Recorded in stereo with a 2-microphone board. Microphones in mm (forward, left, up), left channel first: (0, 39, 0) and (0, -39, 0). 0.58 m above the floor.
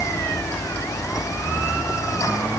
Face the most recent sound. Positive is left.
No sound to turn to.